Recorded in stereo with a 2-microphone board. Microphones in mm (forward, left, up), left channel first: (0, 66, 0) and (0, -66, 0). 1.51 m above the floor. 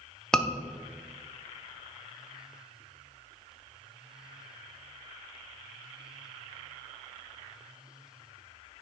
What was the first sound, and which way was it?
A scream, 5° left (ahead or behind).